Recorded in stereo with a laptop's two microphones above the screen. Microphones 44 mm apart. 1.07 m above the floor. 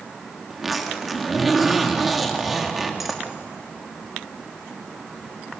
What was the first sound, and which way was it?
A zipper, 5° right (ahead or behind).